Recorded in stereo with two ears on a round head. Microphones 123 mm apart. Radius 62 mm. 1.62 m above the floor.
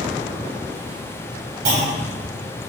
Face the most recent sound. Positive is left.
turn(degrees=-70)  # may be behind; listen again after turning